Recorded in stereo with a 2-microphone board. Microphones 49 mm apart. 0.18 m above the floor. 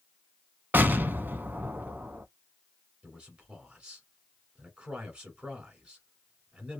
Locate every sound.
0.7 s an explosion: 40° right (ahead or behind), 0.5 m
3.0 s a man speaking: 20° right (ahead or behind), 1.5 m